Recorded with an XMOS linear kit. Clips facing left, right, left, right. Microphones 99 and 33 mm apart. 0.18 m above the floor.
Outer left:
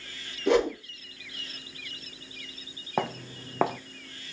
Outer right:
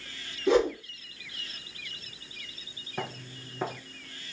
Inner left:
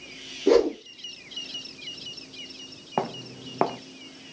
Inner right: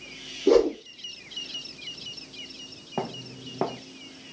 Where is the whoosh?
65° left (ahead or behind), 3 m.